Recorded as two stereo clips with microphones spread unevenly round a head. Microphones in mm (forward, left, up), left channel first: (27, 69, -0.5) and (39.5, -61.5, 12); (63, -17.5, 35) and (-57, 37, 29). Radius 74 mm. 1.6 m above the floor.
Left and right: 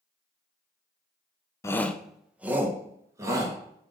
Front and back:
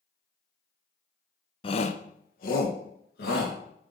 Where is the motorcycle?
I don't hear a motorcycle.